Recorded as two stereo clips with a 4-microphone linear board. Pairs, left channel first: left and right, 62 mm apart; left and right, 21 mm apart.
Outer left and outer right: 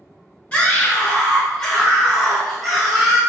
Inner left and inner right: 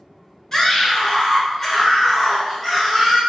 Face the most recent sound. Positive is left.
turn(degrees=-5)  # may be behind; listen again after turning